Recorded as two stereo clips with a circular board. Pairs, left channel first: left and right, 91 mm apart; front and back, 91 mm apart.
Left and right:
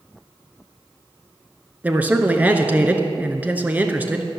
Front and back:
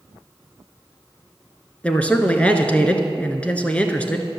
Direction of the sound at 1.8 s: 50° right.